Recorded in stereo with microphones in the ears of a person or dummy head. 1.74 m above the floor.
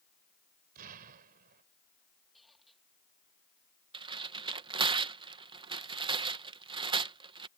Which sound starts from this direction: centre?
A squeak, at 2.3 s.